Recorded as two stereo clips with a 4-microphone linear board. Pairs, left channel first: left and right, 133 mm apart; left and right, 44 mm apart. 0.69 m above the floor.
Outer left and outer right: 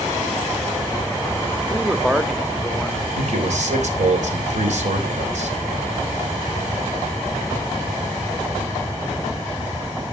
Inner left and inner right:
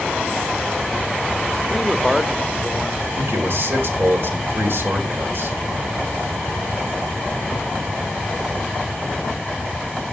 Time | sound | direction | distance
1.7 | a man speaking | centre (ahead or behind) | 0.9 m
3.2 | a man speaking | 60° right (ahead or behind) | 3 m